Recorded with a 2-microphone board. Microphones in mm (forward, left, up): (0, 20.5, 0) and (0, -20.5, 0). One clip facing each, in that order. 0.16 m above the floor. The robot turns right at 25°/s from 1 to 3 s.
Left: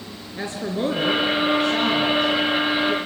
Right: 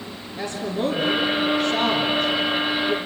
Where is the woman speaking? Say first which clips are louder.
Even; 20° left (ahead or behind), 2.5 m; by 3.0 s 20° right (ahead or behind), 2.5 m.